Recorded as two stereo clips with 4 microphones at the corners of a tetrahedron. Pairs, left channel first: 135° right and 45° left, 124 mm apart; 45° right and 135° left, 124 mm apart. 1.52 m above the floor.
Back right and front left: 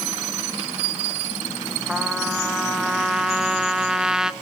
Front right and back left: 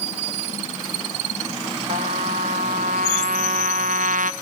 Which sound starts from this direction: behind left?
A trumpet, at 1.9 s.